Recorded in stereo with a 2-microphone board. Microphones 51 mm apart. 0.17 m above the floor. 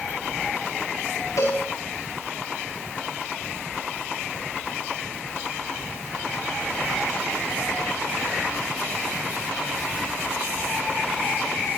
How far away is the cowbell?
About 9 m.